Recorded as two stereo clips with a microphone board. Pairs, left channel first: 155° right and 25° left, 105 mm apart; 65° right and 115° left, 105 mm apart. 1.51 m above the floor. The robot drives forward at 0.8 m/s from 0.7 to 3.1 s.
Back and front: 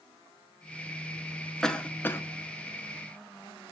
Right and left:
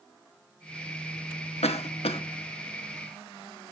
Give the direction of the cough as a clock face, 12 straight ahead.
2 o'clock.